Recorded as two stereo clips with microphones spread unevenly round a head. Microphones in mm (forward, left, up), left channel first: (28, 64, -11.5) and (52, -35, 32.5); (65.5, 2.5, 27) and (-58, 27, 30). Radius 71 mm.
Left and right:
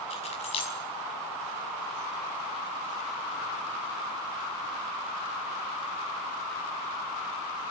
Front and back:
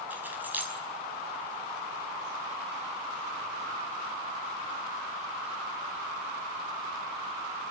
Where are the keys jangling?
95° left, 5.5 m.